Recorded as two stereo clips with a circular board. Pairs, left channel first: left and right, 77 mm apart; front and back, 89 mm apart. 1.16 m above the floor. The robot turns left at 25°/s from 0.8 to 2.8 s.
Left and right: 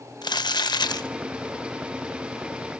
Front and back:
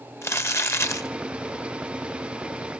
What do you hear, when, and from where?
0.2 s crumpling: 60° left, 0.8 m; by 1.1 s 55° left, 0.8 m